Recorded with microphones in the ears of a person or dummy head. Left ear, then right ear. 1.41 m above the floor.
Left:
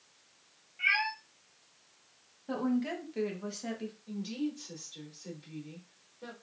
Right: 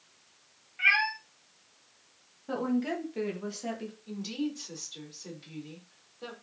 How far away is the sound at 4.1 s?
About 3 m.